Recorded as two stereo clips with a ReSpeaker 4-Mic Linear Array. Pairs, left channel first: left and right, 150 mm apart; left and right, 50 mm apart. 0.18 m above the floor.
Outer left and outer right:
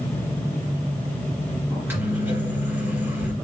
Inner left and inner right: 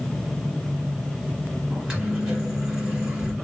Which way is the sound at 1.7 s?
15° right (ahead or behind).